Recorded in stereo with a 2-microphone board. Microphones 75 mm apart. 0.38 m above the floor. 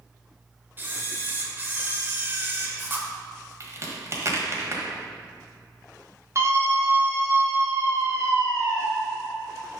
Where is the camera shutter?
30° right (ahead or behind), 0.9 m.